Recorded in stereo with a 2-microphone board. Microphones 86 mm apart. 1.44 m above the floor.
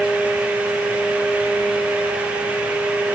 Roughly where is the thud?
No thud in this recording.